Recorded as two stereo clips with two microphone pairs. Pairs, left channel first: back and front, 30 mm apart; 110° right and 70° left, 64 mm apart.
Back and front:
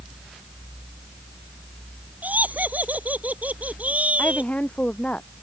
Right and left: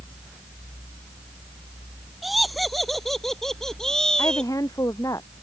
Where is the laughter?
20° right; by 4.5 s 35° right.